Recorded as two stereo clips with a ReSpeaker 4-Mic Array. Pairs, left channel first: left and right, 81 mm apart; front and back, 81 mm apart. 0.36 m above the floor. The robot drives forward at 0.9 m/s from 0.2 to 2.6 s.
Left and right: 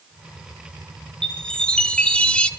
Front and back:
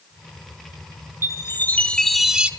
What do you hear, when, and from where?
1.2 s a chime: 20° left, 1.4 m; by 2.5 s 135° left, 1.1 m